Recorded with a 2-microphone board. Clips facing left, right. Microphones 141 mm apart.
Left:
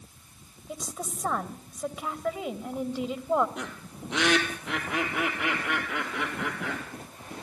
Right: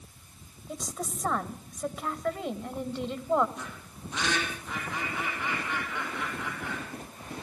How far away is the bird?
About 4 m.